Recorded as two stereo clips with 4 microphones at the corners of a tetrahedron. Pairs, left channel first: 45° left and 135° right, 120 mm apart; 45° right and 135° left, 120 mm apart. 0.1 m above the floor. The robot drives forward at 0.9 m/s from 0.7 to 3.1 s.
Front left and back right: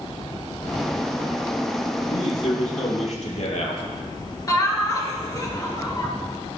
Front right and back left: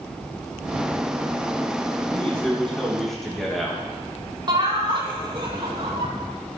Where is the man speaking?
35° left, 4.5 m; by 3.8 s 45° left, 3.5 m.